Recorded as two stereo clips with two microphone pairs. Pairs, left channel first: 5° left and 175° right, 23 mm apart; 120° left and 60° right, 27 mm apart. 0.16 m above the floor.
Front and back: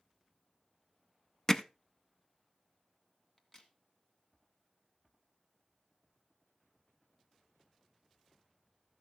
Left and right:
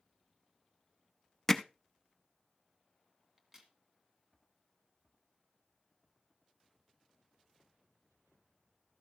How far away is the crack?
About 1.9 m.